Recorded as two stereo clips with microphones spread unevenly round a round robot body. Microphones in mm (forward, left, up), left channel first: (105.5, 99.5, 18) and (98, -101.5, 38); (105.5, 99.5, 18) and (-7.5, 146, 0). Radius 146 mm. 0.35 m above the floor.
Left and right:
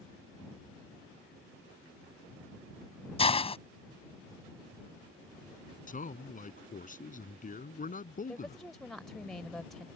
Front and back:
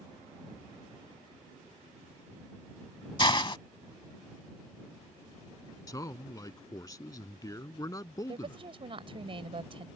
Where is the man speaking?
40° left.